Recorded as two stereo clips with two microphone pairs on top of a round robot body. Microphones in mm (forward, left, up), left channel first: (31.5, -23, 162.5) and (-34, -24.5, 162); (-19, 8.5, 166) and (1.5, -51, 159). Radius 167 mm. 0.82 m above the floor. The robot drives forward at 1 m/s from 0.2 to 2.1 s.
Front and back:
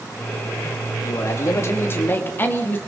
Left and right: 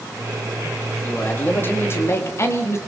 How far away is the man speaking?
About 3 m.